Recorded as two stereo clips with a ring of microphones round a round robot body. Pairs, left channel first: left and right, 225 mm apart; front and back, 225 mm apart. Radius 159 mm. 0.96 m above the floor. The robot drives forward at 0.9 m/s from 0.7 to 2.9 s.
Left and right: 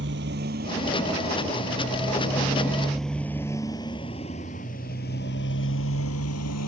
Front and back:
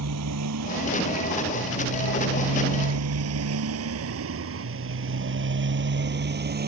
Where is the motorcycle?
150° right; by 6.7 s 135° left.